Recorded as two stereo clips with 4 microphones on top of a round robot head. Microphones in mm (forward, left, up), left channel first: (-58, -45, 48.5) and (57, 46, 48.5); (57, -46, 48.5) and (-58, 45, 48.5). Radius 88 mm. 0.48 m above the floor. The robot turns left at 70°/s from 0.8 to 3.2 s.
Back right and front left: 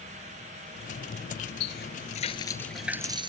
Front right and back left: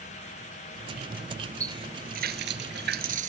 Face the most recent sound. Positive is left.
turn(degrees=100)